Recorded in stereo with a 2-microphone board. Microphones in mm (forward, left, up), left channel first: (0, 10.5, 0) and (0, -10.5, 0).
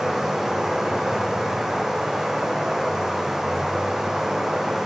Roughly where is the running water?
Centre.